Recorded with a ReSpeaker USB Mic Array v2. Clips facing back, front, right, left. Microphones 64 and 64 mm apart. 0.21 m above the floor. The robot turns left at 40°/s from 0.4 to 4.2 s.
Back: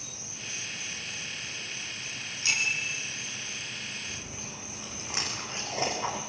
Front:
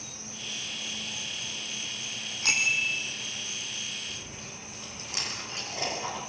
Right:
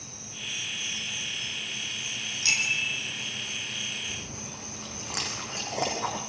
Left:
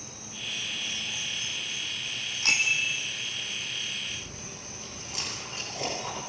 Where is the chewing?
110° right, 8 m; by 6.2 s 115° right, 8 m.